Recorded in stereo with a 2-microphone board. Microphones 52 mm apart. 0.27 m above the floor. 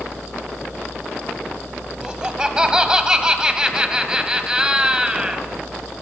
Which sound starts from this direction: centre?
Laughter, at 2.0 s.